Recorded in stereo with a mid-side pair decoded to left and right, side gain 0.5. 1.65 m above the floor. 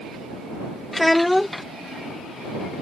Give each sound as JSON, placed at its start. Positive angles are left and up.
{"t": 0.9, "sound": "a child speaking", "azimuth_deg": 10}